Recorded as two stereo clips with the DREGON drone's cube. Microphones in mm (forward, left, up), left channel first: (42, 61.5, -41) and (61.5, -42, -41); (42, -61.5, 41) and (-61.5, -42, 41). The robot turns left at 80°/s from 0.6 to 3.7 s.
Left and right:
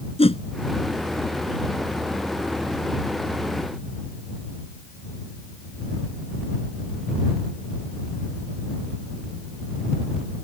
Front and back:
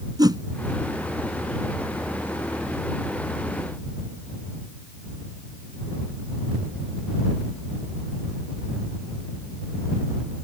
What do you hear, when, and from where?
0.2 s a whoosh: 115° left